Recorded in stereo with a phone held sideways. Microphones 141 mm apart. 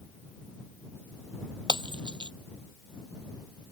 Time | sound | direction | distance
1.7 | breaking glass | 35° right (ahead or behind) | ?